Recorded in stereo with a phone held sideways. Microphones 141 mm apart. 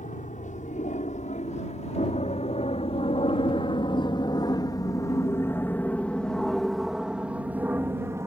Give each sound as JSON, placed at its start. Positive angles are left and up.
{"t": 0.0, "sound": "an aircraft", "side_deg": 60}